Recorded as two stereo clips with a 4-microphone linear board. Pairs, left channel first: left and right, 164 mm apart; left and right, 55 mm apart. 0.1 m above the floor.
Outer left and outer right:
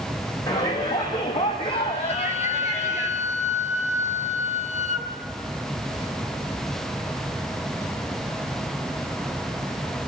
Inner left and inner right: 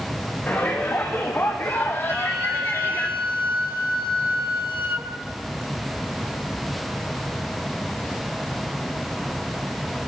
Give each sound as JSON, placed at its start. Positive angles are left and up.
{"t": 0.5, "sound": "a shout", "side_deg": 25, "distance_m": 7.5}
{"t": 2.1, "sound": "a flute", "side_deg": -50, "distance_m": 1.8}